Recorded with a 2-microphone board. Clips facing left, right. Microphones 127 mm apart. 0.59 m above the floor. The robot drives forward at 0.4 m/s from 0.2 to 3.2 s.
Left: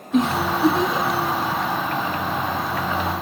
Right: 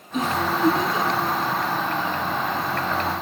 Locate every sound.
0.1 s a giggle: 80° left, 1.3 m; by 1.2 s 70° left (ahead or behind), 1.4 m